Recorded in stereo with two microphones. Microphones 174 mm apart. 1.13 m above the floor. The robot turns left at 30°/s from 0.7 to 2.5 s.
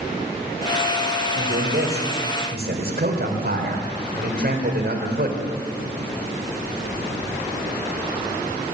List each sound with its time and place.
1.4 s a man speaking: 80° right, 4.5 m; by 5.4 s 115° right, 4.5 m